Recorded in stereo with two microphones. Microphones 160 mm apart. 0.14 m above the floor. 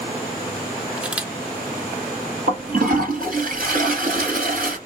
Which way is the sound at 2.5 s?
65° right (ahead or behind).